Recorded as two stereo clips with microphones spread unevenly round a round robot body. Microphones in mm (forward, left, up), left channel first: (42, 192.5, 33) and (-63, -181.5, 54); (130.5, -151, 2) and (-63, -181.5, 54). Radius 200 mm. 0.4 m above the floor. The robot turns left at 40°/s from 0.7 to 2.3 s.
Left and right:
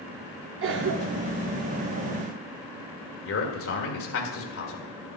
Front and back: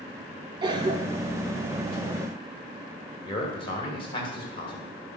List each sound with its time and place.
0.6 s a cough: 95° right, 0.9 m; by 1.4 s 125° right, 0.9 m
3.2 s a man speaking: 40° left, 1.8 m